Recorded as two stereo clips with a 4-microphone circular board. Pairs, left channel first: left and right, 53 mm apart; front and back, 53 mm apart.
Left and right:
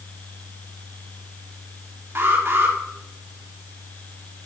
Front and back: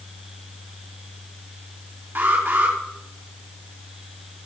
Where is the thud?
No thud in this recording.